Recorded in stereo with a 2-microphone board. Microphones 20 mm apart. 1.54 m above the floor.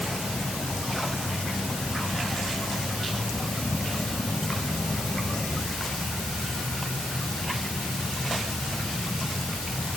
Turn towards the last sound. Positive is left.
No sound to turn to.